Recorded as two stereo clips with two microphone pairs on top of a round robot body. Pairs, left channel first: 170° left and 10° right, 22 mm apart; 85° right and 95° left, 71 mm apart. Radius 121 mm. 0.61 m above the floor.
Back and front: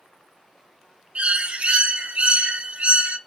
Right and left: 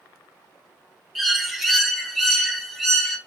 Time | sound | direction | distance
1.1 | a bird | 5° left | 0.6 m